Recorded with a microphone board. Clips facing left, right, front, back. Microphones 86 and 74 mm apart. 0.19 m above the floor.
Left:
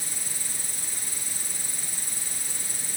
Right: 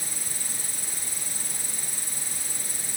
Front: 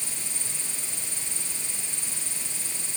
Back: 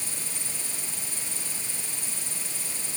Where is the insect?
135° right.